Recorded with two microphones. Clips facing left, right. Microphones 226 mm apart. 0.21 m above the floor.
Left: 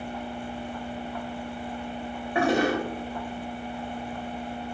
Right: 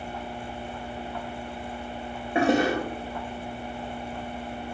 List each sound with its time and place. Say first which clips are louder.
2.4 s a toilet flushing: right 1 dB; 25° right (ahead or behind), 7 m